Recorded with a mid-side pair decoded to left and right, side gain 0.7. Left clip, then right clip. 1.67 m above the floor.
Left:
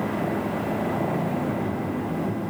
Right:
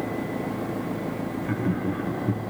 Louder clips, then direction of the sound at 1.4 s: Left 1 dB; 55° right.